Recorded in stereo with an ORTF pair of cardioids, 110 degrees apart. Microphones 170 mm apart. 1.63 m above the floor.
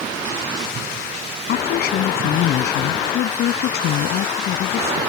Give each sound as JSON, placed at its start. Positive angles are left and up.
{"t": 1.5, "sound": "a woman speaking", "azimuth_deg": 65}